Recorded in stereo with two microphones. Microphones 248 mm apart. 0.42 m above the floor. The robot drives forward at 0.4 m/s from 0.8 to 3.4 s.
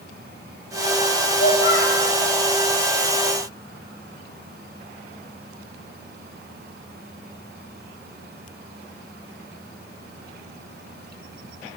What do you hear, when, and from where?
1.3 s a child speaking: 55° left (ahead or behind), 1.5 m; by 2.0 s 50° left (ahead or behind), 1.6 m